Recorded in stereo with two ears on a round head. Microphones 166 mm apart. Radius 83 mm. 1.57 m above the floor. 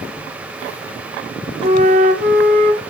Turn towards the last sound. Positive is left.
turn(degrees=-40)  # may be behind; listen again after turning